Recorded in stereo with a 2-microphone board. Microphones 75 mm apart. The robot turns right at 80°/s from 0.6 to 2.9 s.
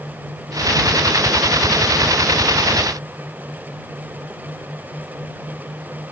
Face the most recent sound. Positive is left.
No sound to turn to.